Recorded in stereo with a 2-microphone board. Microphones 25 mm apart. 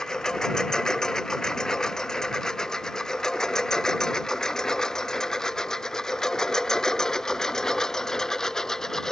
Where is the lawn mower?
25° left (ahead or behind); by 9.1 s 20° left (ahead or behind).